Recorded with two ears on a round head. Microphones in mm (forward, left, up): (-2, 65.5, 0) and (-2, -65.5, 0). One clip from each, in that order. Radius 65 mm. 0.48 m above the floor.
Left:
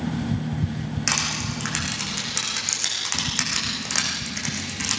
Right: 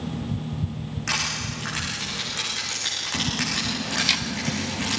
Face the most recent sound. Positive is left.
turn(degrees=65)  # may be behind; listen again after turning